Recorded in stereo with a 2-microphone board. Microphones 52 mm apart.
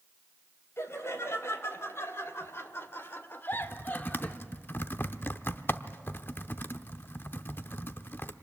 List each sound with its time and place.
0.8 s laughter: 60° left (ahead or behind), 3 m; by 4.4 s 25° left (ahead or behind), 1.2 m
3.5 s typing on a keyboard: 45° left (ahead or behind), 0.7 m